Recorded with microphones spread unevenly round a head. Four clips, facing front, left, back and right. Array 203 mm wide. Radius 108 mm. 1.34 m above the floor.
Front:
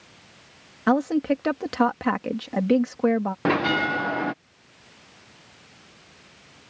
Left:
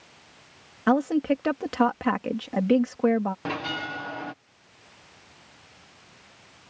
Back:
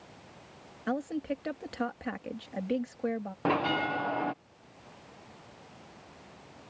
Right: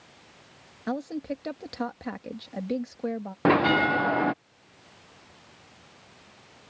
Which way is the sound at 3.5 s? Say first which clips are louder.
Right 10 dB, front 4 dB; 40° right.